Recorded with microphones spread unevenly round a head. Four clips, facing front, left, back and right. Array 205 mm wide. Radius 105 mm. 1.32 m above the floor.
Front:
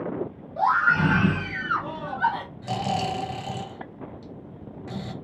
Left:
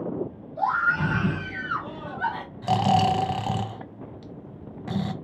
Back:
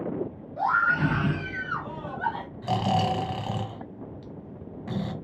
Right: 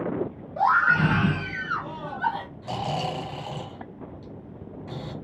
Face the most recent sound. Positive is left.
turn(degrees=90)